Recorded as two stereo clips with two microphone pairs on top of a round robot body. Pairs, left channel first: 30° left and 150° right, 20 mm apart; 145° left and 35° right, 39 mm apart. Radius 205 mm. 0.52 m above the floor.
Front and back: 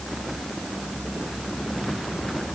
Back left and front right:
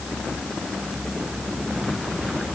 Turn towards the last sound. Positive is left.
No sound to turn to.